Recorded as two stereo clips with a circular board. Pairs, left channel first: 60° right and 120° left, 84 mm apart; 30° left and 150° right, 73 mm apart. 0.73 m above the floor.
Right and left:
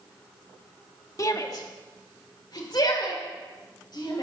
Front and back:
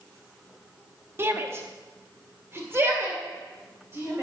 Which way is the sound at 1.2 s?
100° right.